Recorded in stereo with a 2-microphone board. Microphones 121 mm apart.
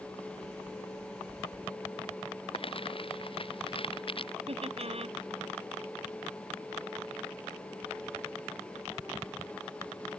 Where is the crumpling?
50° left (ahead or behind).